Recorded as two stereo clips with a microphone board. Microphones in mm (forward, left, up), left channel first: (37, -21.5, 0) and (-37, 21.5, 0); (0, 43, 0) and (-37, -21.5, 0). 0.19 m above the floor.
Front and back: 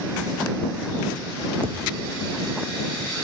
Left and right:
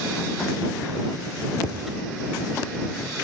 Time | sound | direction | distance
1.6 | a thud | 160° left | ?